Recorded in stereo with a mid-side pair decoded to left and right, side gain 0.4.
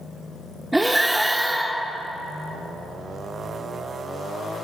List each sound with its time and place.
0.7 s breathing: 15° right, 0.7 m